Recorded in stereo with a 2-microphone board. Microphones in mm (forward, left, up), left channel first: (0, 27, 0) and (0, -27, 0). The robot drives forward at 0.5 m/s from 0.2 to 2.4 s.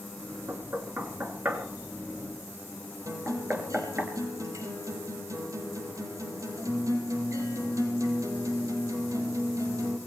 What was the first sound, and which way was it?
Knocking, 45° right (ahead or behind).